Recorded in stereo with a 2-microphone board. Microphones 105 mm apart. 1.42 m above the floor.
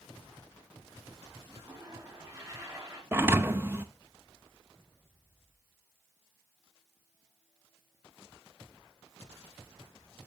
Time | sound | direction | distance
1.5 | a toilet flushing | 30° right (ahead or behind) | 4 m
3.1 | a thud | 20° right (ahead or behind) | 0.7 m